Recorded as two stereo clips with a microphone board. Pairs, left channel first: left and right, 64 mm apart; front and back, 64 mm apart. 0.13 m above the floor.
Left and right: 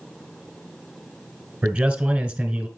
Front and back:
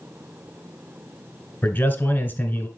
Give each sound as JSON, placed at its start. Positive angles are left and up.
{"t": 1.6, "sound": "a man speaking", "azimuth_deg": -30, "distance_m": 1.2}